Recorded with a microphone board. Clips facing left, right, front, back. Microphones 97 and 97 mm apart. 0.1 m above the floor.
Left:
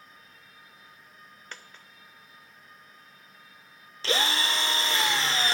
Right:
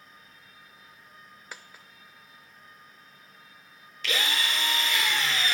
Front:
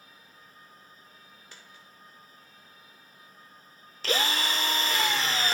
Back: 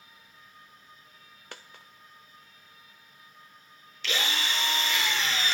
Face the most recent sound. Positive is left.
turn(degrees=40)